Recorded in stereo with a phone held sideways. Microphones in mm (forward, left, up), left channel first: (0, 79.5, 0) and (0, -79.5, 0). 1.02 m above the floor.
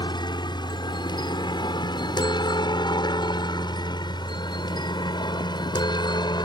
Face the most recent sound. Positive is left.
turn(degrees=25)  # may be behind; listen again after turning